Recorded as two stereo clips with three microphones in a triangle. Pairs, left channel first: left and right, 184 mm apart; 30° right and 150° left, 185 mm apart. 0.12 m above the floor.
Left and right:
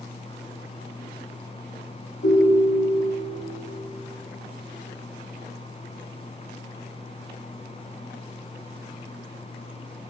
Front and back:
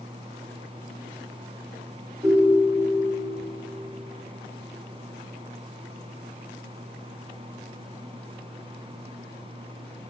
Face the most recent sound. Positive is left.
turn(degrees=80)